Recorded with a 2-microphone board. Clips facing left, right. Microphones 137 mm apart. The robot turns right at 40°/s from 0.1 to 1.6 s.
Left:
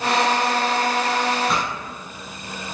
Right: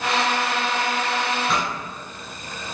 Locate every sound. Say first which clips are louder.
1.5 s a pop: left 1 dB; centre (ahead or behind), 1.1 m